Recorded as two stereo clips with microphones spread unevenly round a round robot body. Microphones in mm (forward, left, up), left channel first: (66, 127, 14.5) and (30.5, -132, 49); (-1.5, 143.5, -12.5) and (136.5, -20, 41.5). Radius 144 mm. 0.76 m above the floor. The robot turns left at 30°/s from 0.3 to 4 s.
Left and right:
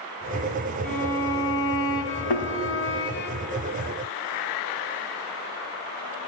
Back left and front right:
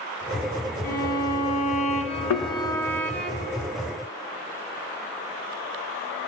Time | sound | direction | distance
0.8 | a violin | 130° left | 1.1 m
2.3 | a thud | 105° left | 3 m